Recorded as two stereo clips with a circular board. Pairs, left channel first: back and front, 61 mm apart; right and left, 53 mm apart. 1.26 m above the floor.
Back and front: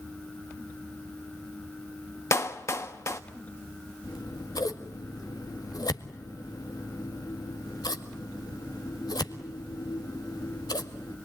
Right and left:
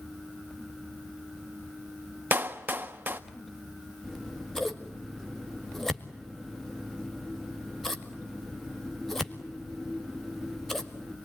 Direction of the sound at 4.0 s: 175° right.